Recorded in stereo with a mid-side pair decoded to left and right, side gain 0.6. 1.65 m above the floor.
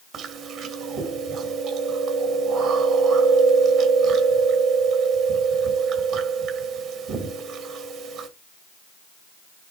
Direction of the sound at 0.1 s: 60° right.